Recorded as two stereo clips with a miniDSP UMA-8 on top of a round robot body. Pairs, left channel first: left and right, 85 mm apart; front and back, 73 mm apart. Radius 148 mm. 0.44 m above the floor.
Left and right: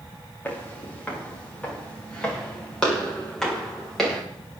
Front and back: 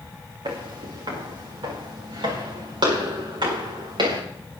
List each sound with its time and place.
0.5 s footsteps: 160° left, 6.5 m; by 4.2 s 175° left, 8 m